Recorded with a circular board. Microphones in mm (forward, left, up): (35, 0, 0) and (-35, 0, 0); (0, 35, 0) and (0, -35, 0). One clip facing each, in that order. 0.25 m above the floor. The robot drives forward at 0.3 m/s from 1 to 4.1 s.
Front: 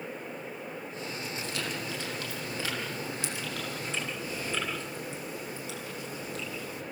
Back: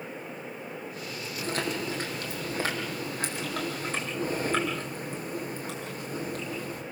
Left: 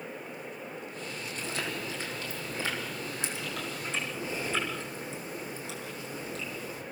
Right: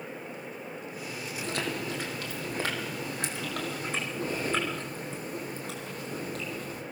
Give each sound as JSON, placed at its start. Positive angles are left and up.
{"t": 1.4, "sound": "chewing", "azimuth_deg": -125, "distance_m": 5.5}